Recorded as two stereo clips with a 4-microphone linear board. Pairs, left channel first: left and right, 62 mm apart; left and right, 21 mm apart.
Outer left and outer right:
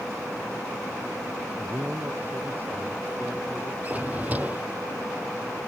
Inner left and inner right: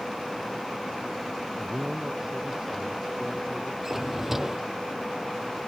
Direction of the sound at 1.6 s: 35° right (ahead or behind).